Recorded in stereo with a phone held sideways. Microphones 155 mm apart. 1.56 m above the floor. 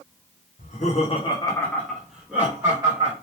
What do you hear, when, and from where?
0.6 s laughter: 60° left (ahead or behind), 0.9 m; by 3.1 s 25° right (ahead or behind), 1.5 m